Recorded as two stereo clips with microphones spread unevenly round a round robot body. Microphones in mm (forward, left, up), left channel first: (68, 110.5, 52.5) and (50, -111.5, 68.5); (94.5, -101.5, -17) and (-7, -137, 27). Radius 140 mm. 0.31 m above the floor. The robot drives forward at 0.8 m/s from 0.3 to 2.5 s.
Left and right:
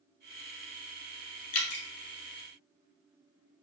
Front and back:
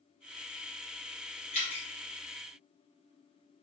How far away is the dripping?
About 1.3 m.